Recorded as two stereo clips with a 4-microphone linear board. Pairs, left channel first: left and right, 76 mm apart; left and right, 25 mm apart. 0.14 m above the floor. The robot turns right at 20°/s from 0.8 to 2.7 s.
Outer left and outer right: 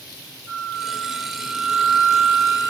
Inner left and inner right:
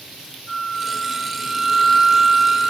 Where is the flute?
175° left, 3 m; by 2.7 s 145° right, 3 m.